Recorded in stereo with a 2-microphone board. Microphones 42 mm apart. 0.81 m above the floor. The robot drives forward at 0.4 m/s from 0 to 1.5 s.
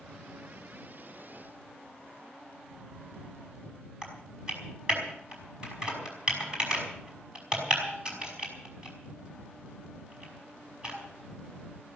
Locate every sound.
4.0 s typing on a keyboard: 20° right (ahead or behind), 5.5 m